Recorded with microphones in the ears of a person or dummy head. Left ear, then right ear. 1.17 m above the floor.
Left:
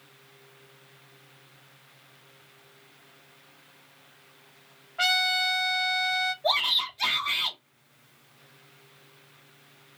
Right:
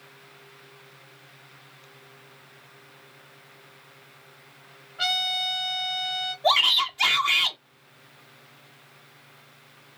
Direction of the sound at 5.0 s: 40° left (ahead or behind).